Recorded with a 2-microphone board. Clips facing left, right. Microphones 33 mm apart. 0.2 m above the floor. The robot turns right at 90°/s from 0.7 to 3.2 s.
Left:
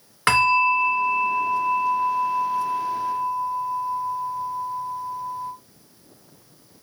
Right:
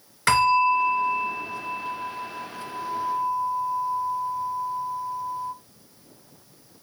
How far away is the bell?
About 2.5 m.